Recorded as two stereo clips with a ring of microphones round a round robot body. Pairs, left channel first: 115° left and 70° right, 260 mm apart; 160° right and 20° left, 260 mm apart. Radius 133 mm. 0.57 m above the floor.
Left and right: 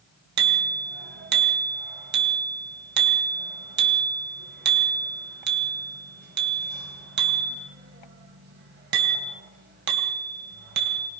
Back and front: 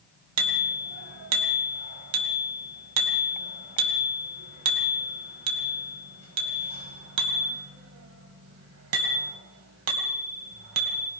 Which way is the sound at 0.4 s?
15° right.